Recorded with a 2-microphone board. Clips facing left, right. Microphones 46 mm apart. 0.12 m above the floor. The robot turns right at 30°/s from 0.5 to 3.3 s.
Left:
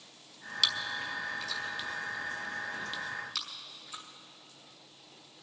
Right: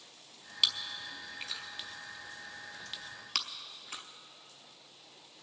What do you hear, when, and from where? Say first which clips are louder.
0.6 s chewing: left 2 dB; 10° right (ahead or behind), 1.0 m; by 4.0 s 60° right (ahead or behind), 1.0 m